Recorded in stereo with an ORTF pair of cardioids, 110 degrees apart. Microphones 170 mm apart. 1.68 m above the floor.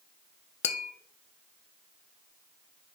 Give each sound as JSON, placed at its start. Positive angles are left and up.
{"t": 0.6, "sound": "tapping", "azimuth_deg": 40, "distance_m": 0.9}